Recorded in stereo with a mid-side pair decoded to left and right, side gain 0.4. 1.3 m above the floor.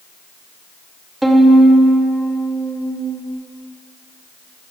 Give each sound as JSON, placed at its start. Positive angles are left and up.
{"t": 1.2, "sound": "a violin", "azimuth_deg": -10, "distance_m": 1.8}